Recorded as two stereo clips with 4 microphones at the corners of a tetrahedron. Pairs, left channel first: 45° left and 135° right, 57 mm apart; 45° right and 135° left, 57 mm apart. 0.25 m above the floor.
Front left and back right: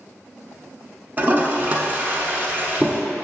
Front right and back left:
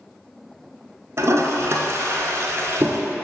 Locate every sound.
1.2 s a toilet flushing: 170° left, 0.9 m